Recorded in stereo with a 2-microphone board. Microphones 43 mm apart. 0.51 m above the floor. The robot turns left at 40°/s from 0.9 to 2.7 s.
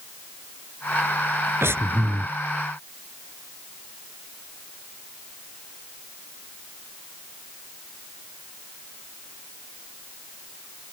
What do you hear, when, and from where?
1.6 s breathing: 85° right; by 2.3 s 65° right (ahead or behind)